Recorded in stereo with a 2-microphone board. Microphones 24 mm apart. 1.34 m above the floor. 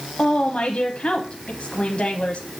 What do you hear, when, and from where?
0.2 s a woman speaking: 55° left (ahead or behind), 0.7 m